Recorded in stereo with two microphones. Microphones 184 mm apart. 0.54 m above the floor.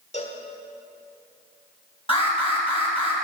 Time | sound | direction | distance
0.1 | a cowbell | 35° left (ahead or behind) | 1.2 m
2.1 | an alarm | 30° left (ahead or behind) | 3 m